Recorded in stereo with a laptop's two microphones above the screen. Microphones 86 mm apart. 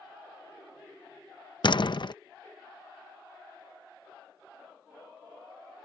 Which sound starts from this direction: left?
A door slam, at 1.6 s.